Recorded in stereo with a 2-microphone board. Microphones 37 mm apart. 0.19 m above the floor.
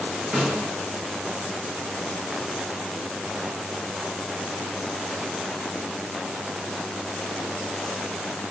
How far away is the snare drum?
About 1.5 m.